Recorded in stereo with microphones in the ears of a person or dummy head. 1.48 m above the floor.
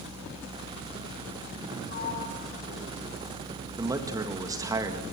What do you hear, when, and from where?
1.9 s a sliding door: 40° left (ahead or behind), 6.5 m
3.8 s a man speaking: 25° right (ahead or behind), 1.7 m